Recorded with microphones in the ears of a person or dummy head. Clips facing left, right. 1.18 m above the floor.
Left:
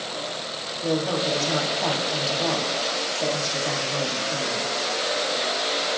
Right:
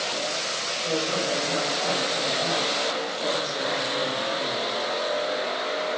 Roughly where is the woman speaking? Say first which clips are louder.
Left 3 dB; left.